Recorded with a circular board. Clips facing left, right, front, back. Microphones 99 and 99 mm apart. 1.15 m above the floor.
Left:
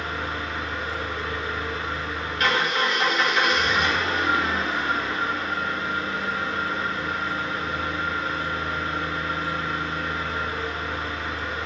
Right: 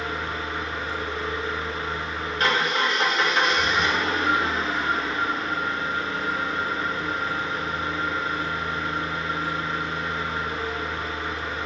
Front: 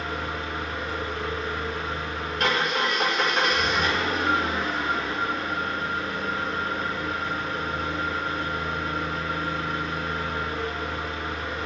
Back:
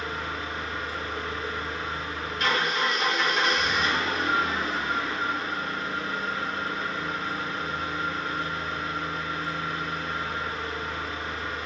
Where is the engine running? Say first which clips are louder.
Even, front 2 dB; 30° right, 2 m.